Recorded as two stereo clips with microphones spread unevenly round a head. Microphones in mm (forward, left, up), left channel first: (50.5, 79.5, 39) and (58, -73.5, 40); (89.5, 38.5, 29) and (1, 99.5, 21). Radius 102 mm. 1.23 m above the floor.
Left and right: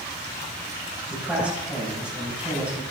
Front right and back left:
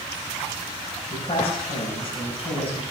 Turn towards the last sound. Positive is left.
turn(degrees=-5)